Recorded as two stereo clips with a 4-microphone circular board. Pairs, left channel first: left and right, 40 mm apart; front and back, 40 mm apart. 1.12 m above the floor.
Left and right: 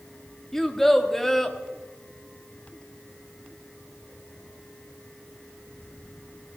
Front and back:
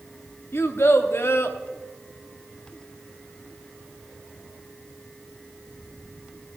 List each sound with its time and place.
0.5 s a child speaking: 10° left, 1.4 m